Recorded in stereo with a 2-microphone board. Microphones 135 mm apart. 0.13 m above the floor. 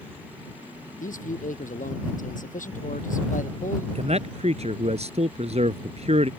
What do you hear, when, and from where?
1.0 s a man speaking: 75° left (ahead or behind)
4.0 s a man speaking: 55° right (ahead or behind)